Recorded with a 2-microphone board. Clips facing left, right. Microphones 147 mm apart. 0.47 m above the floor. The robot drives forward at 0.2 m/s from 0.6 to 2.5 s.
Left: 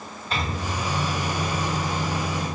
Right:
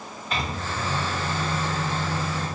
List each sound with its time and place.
0.3 s a microwave: 35° left (ahead or behind), 1.4 m; by 2.5 s 30° left (ahead or behind), 1.6 m